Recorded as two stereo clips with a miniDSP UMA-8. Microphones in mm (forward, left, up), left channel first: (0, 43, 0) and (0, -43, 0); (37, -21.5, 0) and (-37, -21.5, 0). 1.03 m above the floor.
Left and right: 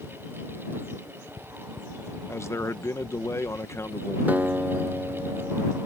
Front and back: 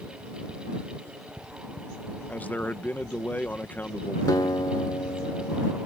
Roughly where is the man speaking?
Ahead left.